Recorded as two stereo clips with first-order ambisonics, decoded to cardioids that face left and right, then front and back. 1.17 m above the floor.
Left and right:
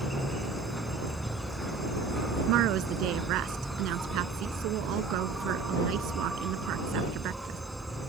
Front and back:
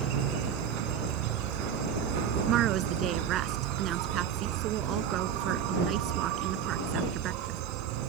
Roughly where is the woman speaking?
Behind right.